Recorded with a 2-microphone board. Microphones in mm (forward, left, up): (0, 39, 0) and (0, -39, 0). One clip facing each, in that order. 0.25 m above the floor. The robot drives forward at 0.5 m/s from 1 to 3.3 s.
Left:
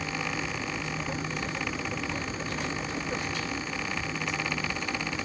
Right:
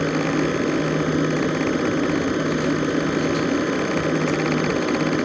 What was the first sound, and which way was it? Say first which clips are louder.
An aircraft: right 13 dB; 65° right (ahead or behind).